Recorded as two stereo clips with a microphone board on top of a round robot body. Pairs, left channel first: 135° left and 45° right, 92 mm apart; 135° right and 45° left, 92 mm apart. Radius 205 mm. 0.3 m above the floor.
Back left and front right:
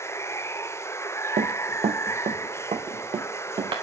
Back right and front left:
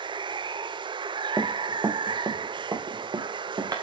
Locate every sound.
0.0 s running water: 75° left, 0.7 m
1.4 s running footsteps: 30° right, 0.7 m; by 3.7 s 5° right, 2 m